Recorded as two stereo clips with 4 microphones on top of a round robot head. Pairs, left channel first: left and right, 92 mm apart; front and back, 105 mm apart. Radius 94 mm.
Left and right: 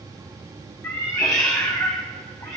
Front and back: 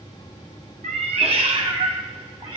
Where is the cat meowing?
160° left, 0.7 m; by 2.6 s 140° left, 1.5 m.